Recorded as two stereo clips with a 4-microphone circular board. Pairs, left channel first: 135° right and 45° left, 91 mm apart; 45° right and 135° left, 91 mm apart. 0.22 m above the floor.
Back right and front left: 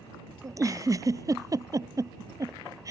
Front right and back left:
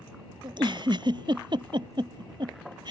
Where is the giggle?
100° left.